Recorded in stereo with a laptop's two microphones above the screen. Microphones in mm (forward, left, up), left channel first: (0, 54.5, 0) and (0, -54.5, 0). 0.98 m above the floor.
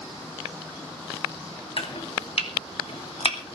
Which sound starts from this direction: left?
Chopping, at 1.8 s.